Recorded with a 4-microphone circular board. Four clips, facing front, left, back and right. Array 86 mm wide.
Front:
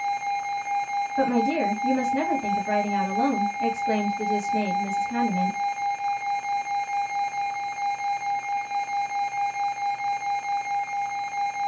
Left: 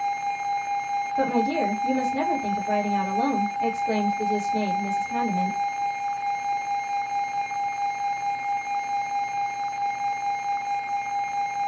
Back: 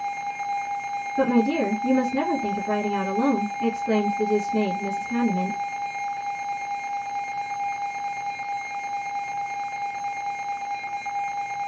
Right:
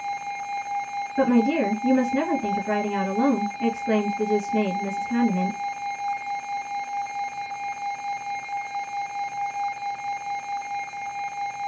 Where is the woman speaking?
75° right, 2.0 m.